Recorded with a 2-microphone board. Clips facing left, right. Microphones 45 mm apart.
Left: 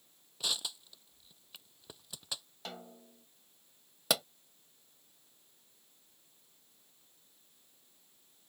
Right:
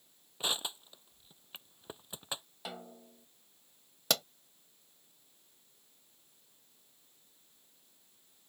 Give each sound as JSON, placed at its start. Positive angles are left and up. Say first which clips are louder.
{"t": 0.4, "sound": "crushing", "louder": "right 2 dB", "side_deg": -30}
{"t": 2.6, "sound": "a snare drum", "louder": "right 1 dB", "side_deg": -5}
{"t": 4.1, "sound": "a pop", "louder": "left 1 dB", "side_deg": 5}